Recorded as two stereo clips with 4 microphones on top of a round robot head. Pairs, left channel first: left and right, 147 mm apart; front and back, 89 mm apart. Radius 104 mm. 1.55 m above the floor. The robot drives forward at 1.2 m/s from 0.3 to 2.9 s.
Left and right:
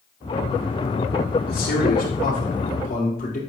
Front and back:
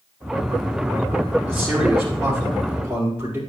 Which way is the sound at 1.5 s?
90° left.